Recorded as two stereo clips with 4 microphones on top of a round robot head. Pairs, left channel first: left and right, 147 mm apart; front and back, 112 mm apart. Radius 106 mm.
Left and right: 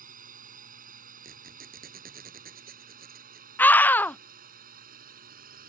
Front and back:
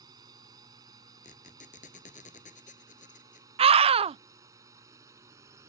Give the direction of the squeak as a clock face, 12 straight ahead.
2 o'clock.